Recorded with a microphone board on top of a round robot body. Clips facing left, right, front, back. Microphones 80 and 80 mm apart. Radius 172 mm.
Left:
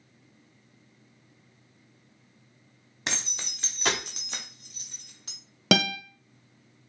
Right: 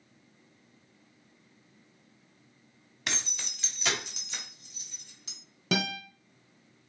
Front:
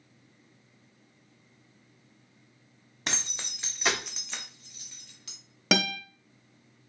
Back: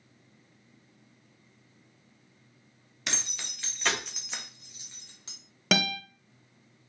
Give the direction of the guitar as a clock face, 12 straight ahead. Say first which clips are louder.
Left 6 dB, front 1 dB; 9 o'clock.